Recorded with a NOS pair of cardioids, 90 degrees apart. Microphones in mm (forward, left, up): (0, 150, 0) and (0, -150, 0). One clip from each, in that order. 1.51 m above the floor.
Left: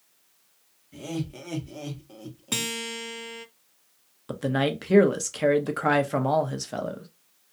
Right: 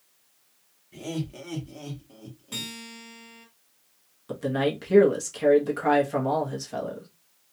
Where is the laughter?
5° right, 1.4 m; by 2.7 s 55° left, 1.2 m.